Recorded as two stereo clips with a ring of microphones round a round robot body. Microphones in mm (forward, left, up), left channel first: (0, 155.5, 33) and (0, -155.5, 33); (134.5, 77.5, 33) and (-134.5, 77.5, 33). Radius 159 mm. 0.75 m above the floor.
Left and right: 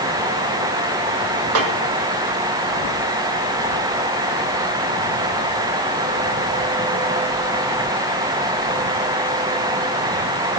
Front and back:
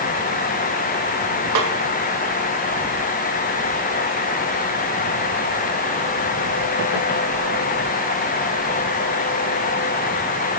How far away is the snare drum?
About 2 m.